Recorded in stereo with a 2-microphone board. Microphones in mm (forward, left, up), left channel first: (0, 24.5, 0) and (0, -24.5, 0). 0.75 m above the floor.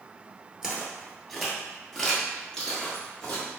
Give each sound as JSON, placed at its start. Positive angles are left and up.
{"t": 0.6, "sound": "footsteps", "side_deg": -15, "distance_m": 0.8}